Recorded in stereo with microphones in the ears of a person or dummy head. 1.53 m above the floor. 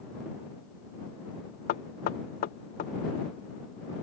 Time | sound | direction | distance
1.7 | knocking | 45° left (ahead or behind) | ?